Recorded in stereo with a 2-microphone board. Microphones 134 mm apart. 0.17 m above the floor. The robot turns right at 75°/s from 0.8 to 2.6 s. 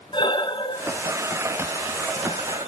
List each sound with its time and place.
0.1 s breathing: 35° left (ahead or behind), 0.9 m; by 2.7 s 60° right (ahead or behind), 0.9 m